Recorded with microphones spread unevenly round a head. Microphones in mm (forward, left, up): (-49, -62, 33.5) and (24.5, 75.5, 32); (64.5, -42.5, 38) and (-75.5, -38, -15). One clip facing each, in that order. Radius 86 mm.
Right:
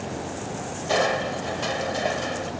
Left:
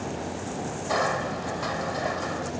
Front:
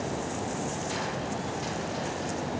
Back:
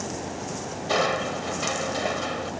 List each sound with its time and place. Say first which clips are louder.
0.9 s crushing: right 4 dB, back 7 dB; straight behind